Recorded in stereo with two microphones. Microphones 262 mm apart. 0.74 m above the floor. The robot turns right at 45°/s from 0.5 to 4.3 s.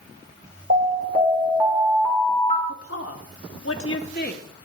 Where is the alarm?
50° right, 3 m; by 2.6 s 35° left, 3 m.